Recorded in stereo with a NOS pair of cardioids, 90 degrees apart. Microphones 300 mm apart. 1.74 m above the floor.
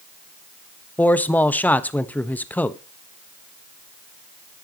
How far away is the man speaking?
About 1.1 m.